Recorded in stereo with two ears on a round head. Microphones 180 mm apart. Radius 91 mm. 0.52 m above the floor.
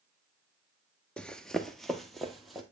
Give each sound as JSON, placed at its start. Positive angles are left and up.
{"t": 1.2, "sound": "running footsteps", "side_deg": 5, "distance_m": 0.5}